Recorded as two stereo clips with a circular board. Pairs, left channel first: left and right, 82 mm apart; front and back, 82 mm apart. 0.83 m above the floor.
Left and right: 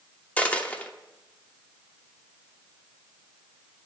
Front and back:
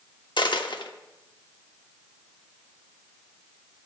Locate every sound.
0.4 s a dropped coin: 20° left, 0.8 m